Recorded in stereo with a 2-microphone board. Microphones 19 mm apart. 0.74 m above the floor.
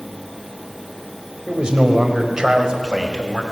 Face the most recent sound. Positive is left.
turn(degrees=-25)  # may be behind; listen again after turning